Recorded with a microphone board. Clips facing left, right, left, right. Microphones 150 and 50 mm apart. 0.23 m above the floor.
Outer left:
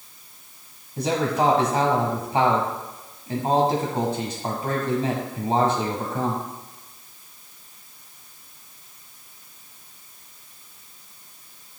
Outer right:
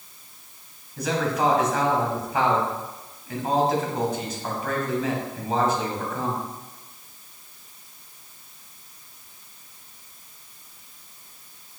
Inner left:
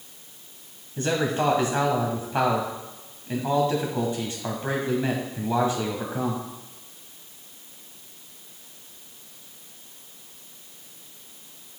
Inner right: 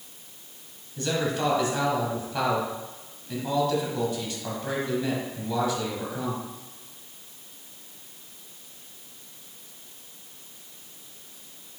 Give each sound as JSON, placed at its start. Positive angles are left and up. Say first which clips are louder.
{"t": 1.0, "sound": "a man speaking", "louder": "outer left 2 dB, inner left 3 dB", "side_deg": 30, "distance_m": 1.3}